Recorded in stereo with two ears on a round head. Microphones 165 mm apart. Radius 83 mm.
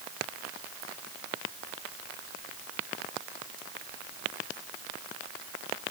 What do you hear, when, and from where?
Only background noise.